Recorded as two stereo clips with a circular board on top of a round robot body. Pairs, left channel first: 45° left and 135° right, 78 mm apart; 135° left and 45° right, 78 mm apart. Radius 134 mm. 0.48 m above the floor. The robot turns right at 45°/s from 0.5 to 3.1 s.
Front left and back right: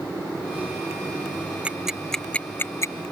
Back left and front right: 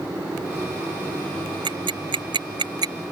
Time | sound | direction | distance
1.6 | ticking | 60° right | ?